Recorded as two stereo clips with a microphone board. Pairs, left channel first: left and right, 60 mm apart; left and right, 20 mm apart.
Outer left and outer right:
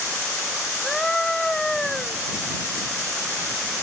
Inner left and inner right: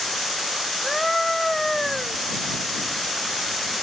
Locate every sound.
0.8 s a scream: 10° left (ahead or behind)